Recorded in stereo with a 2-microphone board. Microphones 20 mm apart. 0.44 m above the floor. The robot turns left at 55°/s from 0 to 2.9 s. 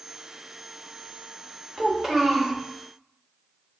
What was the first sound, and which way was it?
A child speaking, 25° right (ahead or behind).